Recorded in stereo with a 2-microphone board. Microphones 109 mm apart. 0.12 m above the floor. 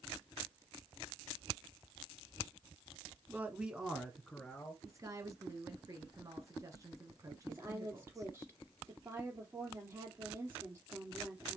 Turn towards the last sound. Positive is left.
turn(degrees=-25)  # may be behind; listen again after turning